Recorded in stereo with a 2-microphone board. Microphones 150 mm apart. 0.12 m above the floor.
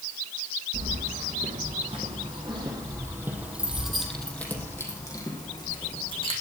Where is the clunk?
I don't hear a clunk.